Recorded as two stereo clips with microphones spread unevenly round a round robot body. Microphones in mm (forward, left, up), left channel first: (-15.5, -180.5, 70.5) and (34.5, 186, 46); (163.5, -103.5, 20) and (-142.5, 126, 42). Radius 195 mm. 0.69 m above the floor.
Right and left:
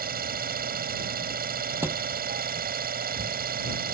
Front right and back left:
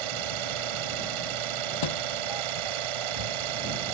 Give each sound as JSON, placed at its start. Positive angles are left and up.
{"t": 0.0, "sound": "an engine running", "azimuth_deg": 150}
{"t": 1.8, "sound": "a thud", "azimuth_deg": -5}